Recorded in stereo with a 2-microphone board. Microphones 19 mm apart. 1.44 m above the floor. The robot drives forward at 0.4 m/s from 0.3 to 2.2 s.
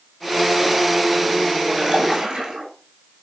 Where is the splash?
60° right (ahead or behind), 7.5 m.